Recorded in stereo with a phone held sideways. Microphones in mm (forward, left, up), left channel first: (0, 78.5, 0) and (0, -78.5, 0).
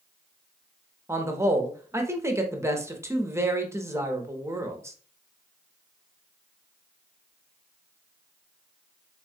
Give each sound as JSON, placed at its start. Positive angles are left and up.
{"t": 1.1, "sound": "a man speaking", "side_deg": -15, "distance_m": 0.8}